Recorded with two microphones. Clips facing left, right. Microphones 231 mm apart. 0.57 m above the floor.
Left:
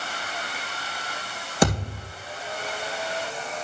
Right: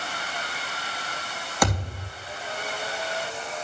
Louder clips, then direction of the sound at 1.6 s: Left 4 dB; 25° left (ahead or behind).